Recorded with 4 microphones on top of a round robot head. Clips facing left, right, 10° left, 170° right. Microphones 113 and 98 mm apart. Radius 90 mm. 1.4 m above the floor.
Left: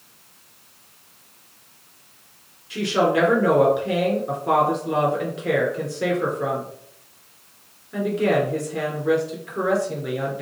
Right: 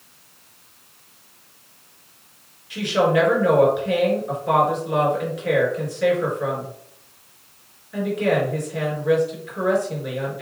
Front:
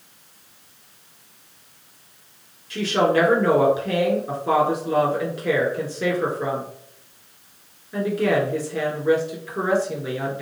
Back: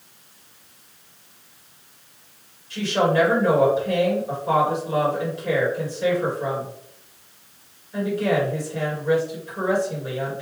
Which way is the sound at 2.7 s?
40° left.